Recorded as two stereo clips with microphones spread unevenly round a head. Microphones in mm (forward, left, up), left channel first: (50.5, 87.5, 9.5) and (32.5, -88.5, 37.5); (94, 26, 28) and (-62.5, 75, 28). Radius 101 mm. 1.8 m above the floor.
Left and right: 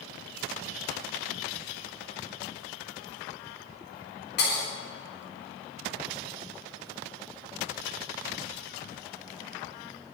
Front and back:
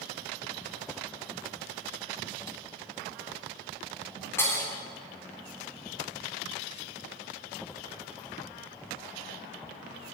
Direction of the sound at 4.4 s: 60° left.